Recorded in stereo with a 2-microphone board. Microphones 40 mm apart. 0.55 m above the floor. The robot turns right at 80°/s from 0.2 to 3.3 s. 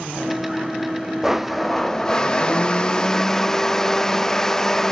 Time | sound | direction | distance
1.2 | a blender | 10° right (ahead or behind) | 0.8 m